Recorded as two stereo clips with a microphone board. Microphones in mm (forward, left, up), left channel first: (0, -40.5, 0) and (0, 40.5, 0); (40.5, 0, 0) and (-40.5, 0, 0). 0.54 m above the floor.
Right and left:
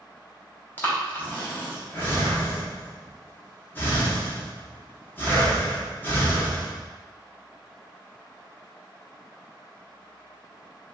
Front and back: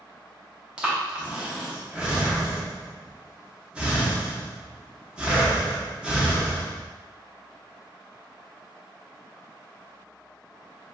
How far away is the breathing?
About 0.7 m.